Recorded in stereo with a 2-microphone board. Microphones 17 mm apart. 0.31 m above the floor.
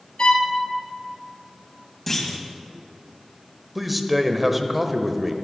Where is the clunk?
10° left (ahead or behind), 2 m.